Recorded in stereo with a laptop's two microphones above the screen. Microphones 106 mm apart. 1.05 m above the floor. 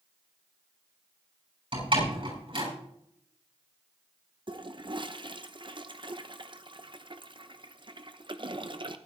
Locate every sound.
1.7 s a door slam: 55° right (ahead or behind), 7.5 m
4.5 s a toilet flushing: 50° right (ahead or behind), 0.9 m